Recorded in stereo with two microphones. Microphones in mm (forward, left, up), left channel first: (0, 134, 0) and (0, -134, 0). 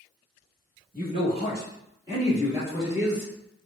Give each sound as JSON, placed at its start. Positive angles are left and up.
{"t": 0.9, "sound": "a man speaking", "side_deg": -25, "distance_m": 1.2}